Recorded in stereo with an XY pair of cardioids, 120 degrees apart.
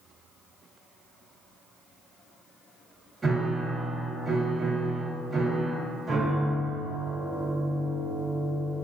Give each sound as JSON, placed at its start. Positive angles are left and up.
{"t": 3.2, "sound": "a piano", "azimuth_deg": -25, "distance_m": 1.4}